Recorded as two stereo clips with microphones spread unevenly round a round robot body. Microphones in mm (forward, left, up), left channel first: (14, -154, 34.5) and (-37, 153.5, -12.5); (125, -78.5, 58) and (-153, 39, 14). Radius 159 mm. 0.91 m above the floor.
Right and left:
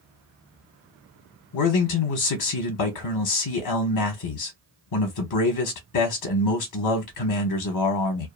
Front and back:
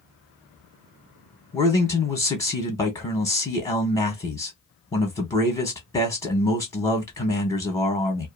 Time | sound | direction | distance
1.5 | a man speaking | 110° right | 0.8 m